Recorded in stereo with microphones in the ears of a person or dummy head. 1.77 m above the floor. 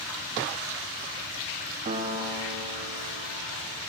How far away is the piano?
About 0.6 m.